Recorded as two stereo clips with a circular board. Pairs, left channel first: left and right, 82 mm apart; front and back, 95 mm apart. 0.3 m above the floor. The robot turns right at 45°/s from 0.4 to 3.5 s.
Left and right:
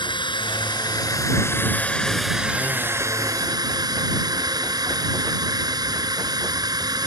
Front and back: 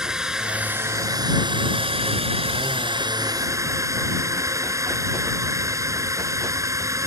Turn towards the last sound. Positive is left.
turn(degrees=-125)